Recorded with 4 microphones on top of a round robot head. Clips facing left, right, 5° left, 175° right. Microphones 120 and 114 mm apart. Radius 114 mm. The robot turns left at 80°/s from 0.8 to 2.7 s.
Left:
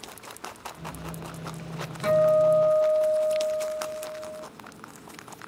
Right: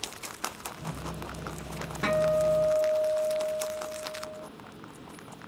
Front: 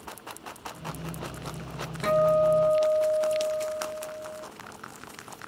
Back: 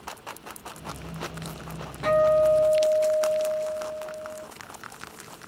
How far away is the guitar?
About 1.8 m.